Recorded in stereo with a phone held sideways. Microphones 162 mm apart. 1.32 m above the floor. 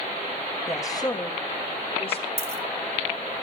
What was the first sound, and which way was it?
A woman speaking, 20° left (ahead or behind).